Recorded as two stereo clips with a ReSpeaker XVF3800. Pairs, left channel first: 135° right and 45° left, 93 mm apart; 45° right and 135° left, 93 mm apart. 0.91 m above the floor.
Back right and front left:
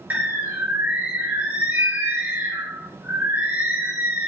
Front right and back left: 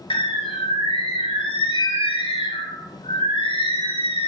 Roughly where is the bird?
Ahead right.